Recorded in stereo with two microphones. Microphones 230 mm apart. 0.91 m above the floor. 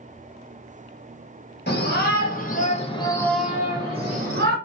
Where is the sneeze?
I don't hear a sneeze.